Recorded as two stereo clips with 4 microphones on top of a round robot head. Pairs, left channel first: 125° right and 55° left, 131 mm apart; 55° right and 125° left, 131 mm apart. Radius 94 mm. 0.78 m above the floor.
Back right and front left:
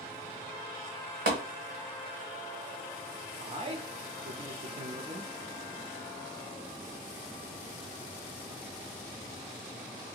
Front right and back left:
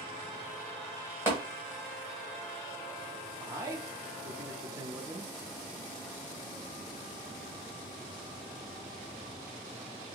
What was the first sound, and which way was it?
Tapping, 50° left.